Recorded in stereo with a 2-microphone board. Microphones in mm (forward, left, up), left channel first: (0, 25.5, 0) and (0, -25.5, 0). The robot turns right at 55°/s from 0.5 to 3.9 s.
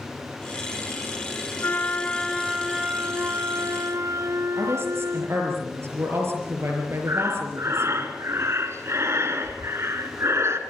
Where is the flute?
135° left, 1.3 m; by 5.4 s 100° right, 1.3 m.